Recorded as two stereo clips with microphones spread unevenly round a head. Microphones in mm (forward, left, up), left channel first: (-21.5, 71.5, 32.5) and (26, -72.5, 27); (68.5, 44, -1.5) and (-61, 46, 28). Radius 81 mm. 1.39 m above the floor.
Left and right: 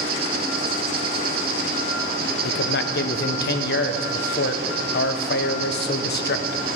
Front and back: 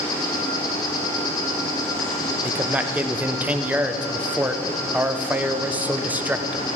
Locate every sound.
0.0 s an insect: 70° right, 1.3 m
2.4 s a man speaking: 95° left, 1.1 m